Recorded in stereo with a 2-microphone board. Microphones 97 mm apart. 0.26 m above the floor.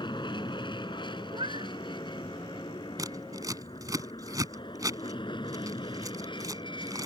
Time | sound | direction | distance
0.0 | an aircraft | 55° left (ahead or behind) | ?
1.3 | a cat meowing | 70° right (ahead or behind) | ?
3.0 | scissors | 40° right (ahead or behind) | ?